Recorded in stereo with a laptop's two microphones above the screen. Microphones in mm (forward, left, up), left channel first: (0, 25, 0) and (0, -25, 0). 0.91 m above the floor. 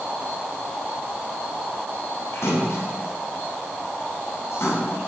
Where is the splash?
80° left, 8.5 m.